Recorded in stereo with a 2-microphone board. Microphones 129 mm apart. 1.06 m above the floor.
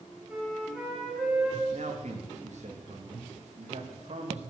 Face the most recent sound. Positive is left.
turn(degrees=-60)  # may be behind; listen again after turning